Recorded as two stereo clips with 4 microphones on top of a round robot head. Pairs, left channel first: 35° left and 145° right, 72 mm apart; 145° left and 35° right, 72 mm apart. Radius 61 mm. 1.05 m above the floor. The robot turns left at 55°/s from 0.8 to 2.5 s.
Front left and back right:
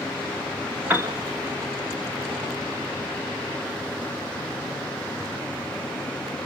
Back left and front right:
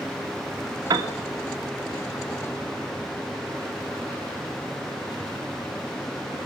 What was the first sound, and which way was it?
A piano, 75° right.